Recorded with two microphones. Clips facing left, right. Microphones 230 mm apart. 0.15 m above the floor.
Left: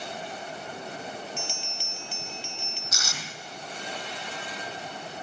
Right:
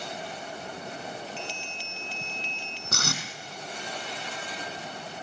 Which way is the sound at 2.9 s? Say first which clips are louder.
Right 7 dB; 60° right (ahead or behind).